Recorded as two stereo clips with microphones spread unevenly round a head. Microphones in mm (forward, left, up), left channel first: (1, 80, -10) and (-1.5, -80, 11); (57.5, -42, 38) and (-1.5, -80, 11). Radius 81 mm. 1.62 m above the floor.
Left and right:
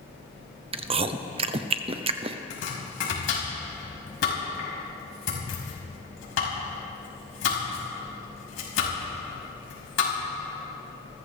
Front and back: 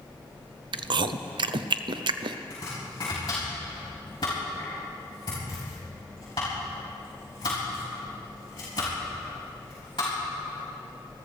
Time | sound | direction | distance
0.7 | chewing | 150° right | 0.6 m
2.5 | chopping | 90° left | 5 m